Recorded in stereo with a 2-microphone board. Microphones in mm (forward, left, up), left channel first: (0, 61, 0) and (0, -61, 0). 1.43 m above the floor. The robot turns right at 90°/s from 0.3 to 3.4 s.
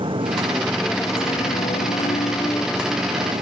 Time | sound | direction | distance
0.0 | a motorcycle | 45° right | ?